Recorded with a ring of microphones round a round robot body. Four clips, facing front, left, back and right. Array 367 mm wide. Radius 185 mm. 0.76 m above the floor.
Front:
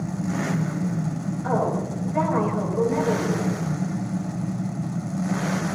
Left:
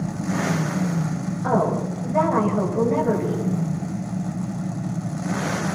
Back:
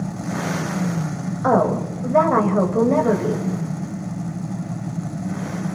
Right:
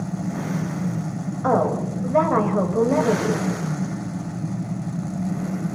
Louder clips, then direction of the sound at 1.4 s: Right 1 dB, back 7 dB; 155° right.